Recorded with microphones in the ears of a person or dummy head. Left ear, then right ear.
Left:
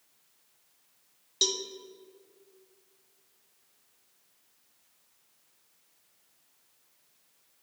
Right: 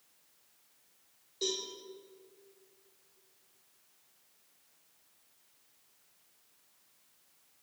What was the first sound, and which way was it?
A cowbell, 65° left (ahead or behind).